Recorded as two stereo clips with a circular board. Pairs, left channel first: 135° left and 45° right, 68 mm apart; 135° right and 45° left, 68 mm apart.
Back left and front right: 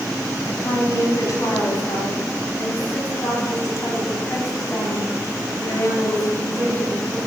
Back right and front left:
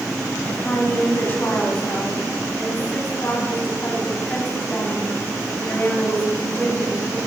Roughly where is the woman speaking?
Behind.